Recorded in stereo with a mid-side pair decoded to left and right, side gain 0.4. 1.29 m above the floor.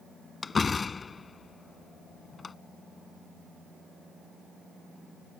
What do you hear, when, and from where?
0.4 s a door slam: 30° left